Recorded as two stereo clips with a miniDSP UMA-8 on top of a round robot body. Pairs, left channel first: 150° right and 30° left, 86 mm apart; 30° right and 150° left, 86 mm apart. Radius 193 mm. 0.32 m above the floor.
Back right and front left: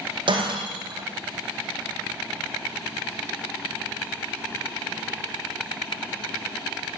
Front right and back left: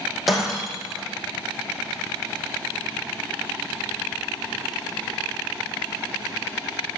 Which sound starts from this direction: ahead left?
Breaking glass, at 0.3 s.